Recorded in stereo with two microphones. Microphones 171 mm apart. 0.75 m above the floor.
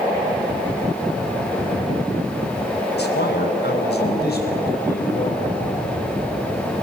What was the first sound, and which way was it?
A man speaking, 80° left.